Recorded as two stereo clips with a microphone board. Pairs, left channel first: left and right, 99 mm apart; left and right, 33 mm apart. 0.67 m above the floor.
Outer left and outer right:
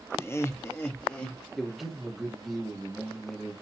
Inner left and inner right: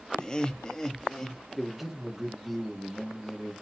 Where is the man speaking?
Centre (ahead or behind), 0.9 m.